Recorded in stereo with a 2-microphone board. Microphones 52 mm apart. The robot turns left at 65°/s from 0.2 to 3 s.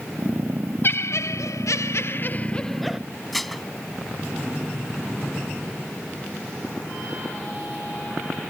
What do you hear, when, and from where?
0.8 s laughter: 135° left; by 3.0 s 5° right
3.3 s dishes clattering: 5° left (ahead or behind)